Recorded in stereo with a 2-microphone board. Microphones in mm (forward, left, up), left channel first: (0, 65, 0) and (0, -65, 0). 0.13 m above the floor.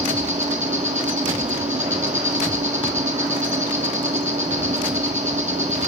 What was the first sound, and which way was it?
An insect, 75° right (ahead or behind).